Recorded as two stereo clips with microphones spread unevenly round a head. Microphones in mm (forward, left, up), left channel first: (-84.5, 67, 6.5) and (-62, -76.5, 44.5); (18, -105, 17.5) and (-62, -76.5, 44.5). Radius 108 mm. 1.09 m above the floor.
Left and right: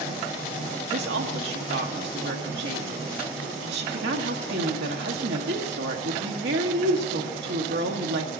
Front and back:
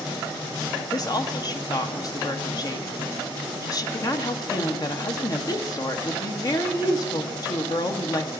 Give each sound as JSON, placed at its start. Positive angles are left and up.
{"t": 0.9, "sound": "a woman speaking", "azimuth_deg": -60, "distance_m": 1.5}